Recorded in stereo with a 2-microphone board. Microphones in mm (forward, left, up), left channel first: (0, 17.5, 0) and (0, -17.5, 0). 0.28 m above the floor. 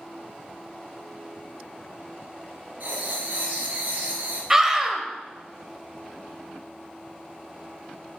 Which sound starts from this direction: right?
Writing, at 2.8 s.